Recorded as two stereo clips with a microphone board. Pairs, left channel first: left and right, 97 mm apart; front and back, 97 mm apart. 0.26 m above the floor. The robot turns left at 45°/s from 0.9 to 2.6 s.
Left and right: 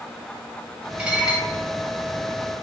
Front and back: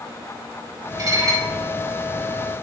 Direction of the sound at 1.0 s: 160° right.